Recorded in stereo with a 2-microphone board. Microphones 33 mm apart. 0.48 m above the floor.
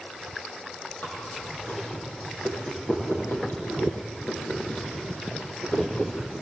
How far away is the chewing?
About 8 m.